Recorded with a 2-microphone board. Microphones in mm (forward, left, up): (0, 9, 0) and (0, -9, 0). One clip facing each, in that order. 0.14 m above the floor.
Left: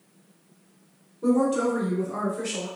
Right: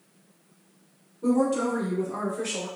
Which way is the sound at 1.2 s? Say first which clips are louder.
Left 1 dB; 25° left (ahead or behind).